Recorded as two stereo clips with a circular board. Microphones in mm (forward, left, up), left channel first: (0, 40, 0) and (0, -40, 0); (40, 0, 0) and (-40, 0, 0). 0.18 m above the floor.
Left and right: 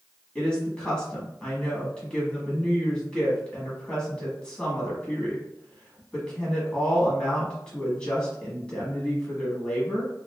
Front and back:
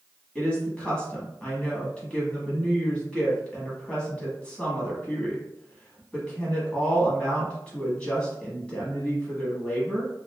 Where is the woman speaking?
40° left, 1.0 m.